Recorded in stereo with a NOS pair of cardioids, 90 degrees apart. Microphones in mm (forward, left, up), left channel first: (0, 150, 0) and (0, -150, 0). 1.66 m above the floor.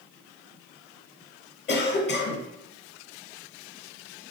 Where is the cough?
35° left, 1.0 m.